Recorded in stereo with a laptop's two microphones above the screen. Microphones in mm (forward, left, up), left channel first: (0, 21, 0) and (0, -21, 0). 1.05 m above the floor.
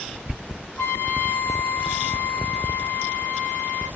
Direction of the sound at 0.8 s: 85° left.